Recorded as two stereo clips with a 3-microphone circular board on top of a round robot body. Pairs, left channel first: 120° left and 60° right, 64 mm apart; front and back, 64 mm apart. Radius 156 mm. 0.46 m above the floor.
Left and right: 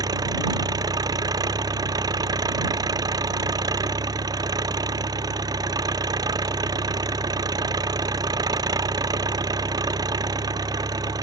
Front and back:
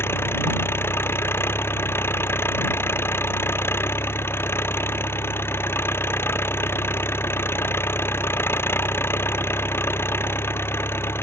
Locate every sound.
0.0 s an engine running: 50° right